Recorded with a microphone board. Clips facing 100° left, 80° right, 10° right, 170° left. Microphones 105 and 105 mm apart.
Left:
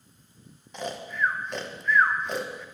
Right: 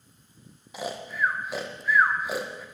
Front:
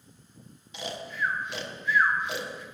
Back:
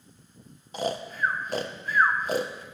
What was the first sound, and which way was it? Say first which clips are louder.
Snoring: even, back 5 dB; 160° right.